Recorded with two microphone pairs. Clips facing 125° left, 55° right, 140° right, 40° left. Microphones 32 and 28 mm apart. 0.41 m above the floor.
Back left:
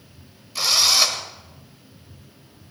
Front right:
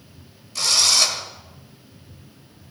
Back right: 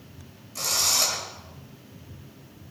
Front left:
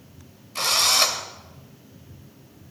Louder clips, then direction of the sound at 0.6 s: Even, front left 5 dB; 55° left.